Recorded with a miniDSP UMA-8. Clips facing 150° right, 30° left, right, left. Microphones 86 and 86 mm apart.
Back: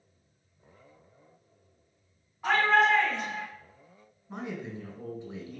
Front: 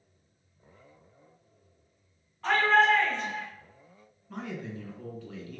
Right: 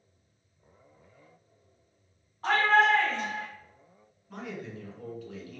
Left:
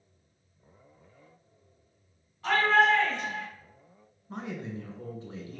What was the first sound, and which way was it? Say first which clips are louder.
A shout: front 1 dB, even; 75° right.